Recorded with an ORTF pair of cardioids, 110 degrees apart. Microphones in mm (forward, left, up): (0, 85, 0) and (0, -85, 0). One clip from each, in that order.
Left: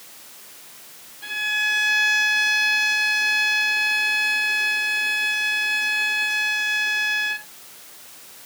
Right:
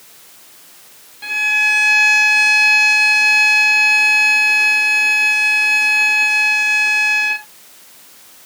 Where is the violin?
30° right.